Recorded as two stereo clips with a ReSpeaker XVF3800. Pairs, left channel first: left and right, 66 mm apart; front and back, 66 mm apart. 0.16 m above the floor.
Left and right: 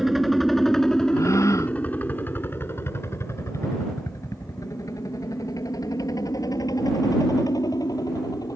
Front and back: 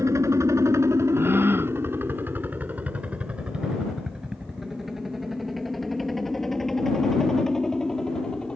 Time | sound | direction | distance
0.0 | a helicopter | 175° right | ?
1.1 | a gasp | 125° left | ?